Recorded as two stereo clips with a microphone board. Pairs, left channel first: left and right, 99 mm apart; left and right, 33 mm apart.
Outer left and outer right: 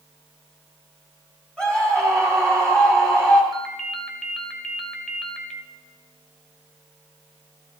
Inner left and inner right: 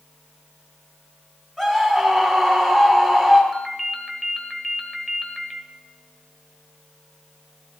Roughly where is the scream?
Centre.